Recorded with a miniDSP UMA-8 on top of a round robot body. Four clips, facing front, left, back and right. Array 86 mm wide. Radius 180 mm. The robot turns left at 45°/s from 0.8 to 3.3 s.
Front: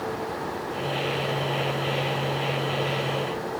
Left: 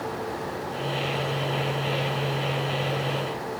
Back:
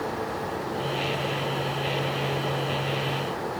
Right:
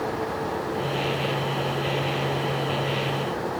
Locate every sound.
Only background noise.